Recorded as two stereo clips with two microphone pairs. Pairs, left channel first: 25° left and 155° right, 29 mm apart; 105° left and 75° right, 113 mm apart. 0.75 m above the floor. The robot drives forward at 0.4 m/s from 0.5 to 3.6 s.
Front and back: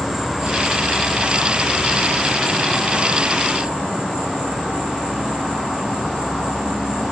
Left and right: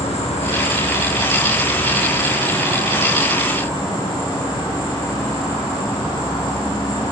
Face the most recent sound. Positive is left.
turn(degrees=155)